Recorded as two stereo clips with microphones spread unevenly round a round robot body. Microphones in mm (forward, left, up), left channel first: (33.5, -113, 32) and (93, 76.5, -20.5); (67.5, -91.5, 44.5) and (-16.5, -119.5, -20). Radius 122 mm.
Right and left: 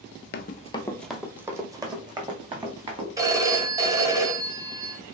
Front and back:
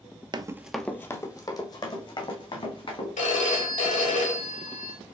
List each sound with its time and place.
0.3 s running footsteps: 95° right, 0.5 m; by 3.1 s 5° left, 2.5 m
3.2 s a phone ringing: 10° left, 1.4 m